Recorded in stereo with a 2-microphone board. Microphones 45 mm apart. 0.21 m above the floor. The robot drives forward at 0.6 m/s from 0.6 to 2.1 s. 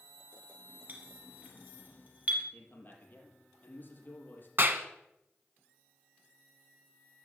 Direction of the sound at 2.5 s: 40° left (ahead or behind).